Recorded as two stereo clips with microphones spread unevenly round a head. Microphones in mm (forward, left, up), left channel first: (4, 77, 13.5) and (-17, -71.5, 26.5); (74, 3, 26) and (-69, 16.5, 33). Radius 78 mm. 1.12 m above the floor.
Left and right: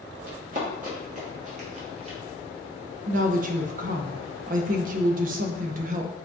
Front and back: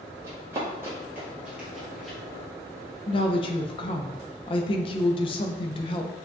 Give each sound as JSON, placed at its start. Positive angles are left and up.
{"t": 0.2, "sound": "running footsteps", "azimuth_deg": -120, "distance_m": 2.0}
{"t": 3.1, "sound": "a woman speaking", "azimuth_deg": -60, "distance_m": 0.5}